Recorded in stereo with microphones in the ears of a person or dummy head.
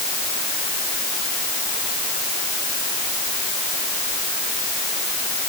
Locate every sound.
Only background noise.